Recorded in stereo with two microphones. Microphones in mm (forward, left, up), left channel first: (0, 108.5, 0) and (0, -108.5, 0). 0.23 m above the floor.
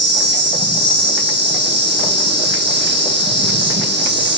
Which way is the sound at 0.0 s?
55° right (ahead or behind).